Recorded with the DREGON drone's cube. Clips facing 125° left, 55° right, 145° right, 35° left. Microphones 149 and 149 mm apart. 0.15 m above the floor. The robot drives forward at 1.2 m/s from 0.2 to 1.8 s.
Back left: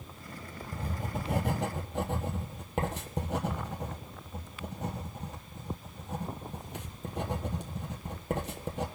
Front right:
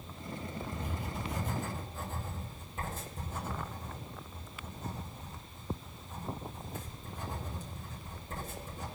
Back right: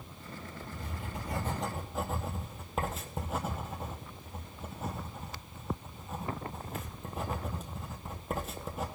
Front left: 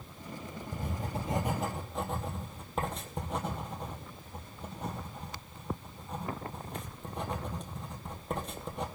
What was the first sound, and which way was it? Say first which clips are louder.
Writing: back left 2 dB, front left 7 dB; 65° left.